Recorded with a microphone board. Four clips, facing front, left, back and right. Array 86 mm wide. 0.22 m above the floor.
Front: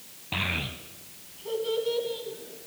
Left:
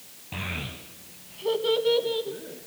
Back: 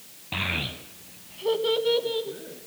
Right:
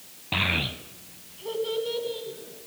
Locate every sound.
0.3 s a child speaking: 85° right, 0.8 m; by 2.7 s 135° left, 2.0 m